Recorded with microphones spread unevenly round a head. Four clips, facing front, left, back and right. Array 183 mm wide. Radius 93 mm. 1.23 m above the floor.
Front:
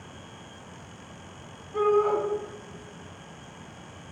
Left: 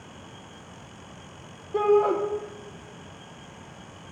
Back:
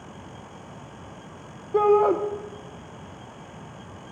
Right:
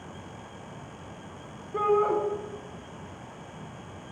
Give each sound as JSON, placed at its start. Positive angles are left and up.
{"t": 1.7, "sound": "a shout", "azimuth_deg": 155, "distance_m": 0.5}